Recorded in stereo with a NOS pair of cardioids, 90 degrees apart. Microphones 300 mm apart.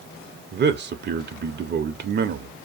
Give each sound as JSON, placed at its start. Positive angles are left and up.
{"t": 0.5, "sound": "a man speaking", "azimuth_deg": -40, "distance_m": 0.6}